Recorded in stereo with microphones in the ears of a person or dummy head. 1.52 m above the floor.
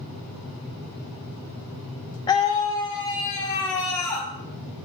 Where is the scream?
20° left (ahead or behind), 0.5 m; by 4.3 s 25° left (ahead or behind), 1.8 m.